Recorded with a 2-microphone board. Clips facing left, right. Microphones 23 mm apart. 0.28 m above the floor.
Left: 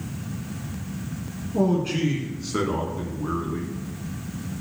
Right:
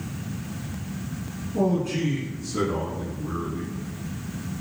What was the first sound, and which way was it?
A man speaking, 25° left (ahead or behind).